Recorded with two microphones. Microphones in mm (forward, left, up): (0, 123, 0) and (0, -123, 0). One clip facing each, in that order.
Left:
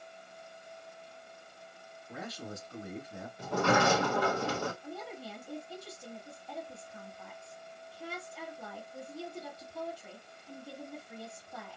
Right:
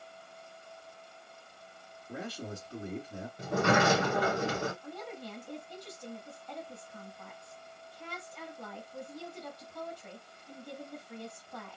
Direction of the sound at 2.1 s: 30° right (ahead or behind).